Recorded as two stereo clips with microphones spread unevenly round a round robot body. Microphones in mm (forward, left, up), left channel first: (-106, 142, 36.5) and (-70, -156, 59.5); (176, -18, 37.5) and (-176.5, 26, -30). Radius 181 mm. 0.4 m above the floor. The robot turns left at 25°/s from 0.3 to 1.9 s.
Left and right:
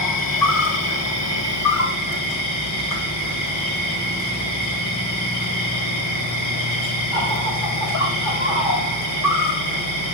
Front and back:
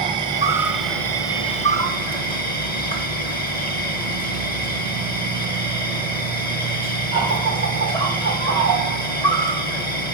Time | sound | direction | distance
0.0 | an insect | 100° left | 1.6 m